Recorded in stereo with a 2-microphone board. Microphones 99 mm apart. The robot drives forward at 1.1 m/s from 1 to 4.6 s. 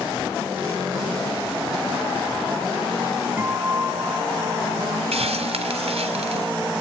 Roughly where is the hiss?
Right.